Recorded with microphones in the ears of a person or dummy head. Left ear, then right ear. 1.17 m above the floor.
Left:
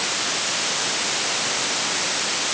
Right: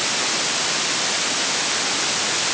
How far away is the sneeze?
I don't hear a sneeze.